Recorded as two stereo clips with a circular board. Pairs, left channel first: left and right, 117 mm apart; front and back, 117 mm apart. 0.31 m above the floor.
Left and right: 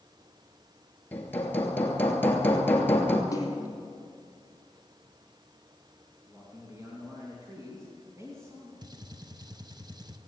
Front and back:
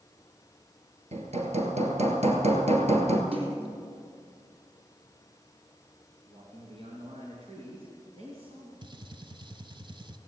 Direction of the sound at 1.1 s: 165° left.